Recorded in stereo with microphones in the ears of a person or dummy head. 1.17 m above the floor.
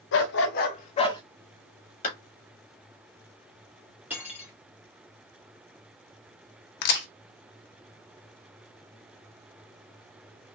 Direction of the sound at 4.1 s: 10° right (ahead or behind).